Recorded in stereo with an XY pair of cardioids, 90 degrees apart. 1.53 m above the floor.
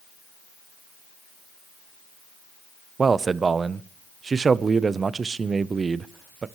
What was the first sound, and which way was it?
A man speaking, 40° right.